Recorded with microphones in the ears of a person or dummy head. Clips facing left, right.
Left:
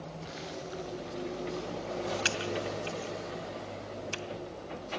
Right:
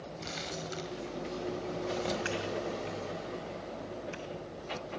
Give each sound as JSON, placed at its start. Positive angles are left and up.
{"t": 0.2, "sound": "crumpling", "side_deg": -55, "distance_m": 3.5}
{"t": 2.2, "sound": "typing on a keyboard", "side_deg": 65, "distance_m": 2.5}